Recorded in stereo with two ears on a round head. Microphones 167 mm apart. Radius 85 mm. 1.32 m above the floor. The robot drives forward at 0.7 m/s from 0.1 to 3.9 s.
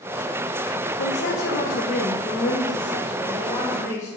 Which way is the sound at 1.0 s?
75° left (ahead or behind).